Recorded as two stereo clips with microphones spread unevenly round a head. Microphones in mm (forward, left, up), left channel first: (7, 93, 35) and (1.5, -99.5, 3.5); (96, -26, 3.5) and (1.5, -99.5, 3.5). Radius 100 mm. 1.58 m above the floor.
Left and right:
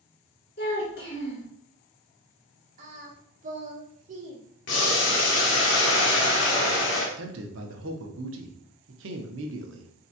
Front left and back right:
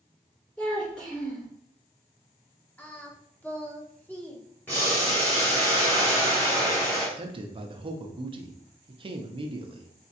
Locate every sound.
0.6 s a child speaking: 120° left, 2 m
2.8 s singing: 40° right, 1.0 m
4.7 s boiling: 120° left, 1.0 m
7.2 s a man speaking: 110° right, 0.7 m